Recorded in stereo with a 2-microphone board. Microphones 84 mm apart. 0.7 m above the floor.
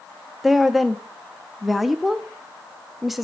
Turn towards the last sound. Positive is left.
turn(degrees=0)  # may be behind; listen again after turning